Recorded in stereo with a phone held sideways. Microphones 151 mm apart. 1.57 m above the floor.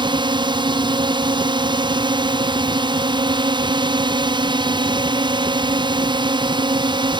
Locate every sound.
0.0 s a drone: 30° right (ahead or behind)